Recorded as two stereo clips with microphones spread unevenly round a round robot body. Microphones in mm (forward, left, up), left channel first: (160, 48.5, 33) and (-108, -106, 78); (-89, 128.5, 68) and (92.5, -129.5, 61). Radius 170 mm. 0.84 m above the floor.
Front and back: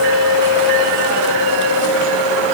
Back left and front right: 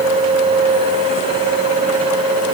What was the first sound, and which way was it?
Only background noise.